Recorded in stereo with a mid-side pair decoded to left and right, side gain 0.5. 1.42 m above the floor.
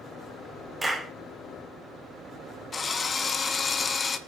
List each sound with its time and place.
0.8 s a clap: 15° right, 4.5 m
2.7 s a drill: 35° left, 1.7 m